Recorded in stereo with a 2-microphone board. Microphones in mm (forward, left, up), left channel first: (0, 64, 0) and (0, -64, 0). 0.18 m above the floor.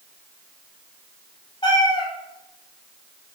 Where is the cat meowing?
40° left (ahead or behind), 0.9 m.